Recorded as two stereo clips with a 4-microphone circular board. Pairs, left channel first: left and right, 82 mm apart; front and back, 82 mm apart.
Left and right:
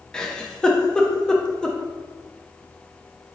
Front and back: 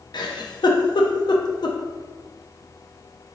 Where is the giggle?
10° left, 0.6 m.